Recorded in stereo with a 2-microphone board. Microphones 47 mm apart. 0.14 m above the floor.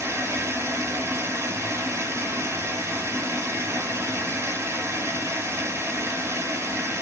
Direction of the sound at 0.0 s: 65° right (ahead or behind).